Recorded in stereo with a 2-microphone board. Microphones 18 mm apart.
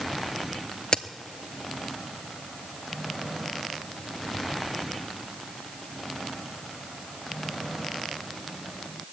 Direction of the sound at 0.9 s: 60° left (ahead or behind).